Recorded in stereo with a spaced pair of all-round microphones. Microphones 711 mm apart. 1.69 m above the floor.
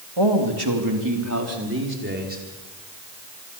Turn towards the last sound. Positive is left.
turn(degrees=-10)  # may be behind; listen again after turning